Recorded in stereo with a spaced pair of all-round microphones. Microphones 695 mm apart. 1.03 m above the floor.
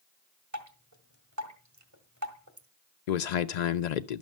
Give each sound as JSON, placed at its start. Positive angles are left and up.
{"t": 0.5, "sound": "dripping", "side_deg": -25, "distance_m": 1.8}
{"t": 3.1, "sound": "a man speaking", "side_deg": 75, "distance_m": 0.6}